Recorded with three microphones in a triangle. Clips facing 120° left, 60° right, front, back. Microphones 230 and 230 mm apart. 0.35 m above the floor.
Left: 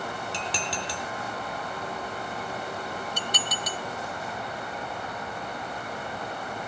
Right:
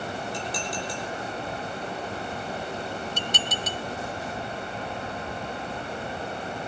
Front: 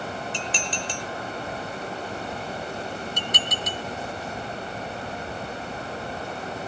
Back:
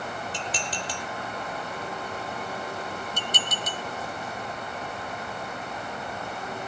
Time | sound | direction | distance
0.3 | dishes clattering | 125° left | 4.5 m
3.2 | dishes clattering | 5° left | 1.1 m